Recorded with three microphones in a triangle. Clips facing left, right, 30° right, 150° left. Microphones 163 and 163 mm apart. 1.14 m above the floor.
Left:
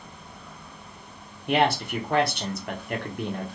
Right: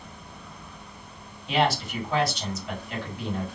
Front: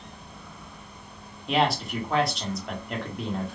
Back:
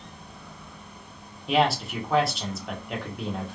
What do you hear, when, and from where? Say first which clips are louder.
1.5 s a man speaking: left 2 dB, back 1 dB; 60° left, 0.9 m